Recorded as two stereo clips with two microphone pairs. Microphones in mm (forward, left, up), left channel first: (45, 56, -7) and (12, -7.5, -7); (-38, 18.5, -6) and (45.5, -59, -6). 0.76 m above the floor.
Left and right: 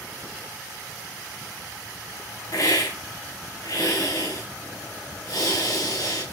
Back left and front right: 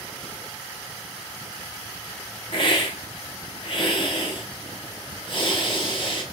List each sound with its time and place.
2.5 s a hiss: 95° left, 2.5 m